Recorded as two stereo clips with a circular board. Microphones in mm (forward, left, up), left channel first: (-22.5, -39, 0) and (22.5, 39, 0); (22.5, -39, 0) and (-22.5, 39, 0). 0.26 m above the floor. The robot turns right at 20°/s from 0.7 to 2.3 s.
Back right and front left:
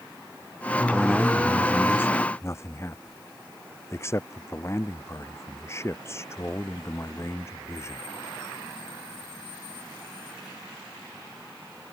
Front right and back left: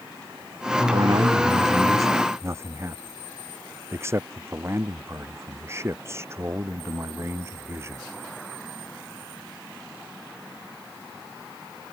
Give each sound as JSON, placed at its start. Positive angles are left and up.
{"t": 0.9, "sound": "a man speaking", "azimuth_deg": 155}